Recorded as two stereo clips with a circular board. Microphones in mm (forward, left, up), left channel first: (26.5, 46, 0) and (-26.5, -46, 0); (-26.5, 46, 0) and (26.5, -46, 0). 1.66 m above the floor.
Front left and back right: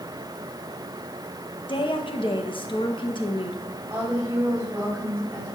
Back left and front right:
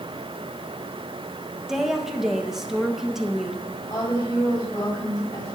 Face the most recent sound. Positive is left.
turn(degrees=170)